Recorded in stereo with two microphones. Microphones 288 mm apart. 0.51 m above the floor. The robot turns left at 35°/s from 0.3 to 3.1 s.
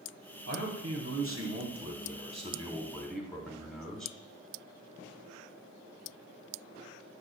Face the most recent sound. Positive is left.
turn(degrees=180)